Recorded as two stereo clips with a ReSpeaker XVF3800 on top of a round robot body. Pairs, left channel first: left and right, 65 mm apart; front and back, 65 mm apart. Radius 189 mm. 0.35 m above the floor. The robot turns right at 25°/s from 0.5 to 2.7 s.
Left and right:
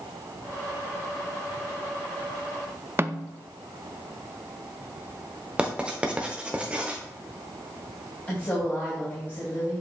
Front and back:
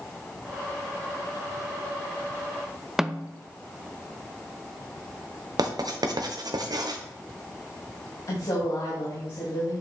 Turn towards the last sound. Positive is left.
turn(degrees=30)